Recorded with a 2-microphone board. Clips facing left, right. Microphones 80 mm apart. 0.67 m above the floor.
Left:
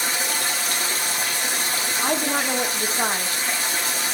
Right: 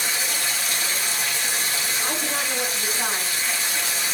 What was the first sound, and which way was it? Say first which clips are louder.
Running water: left 2 dB; 55° left (ahead or behind).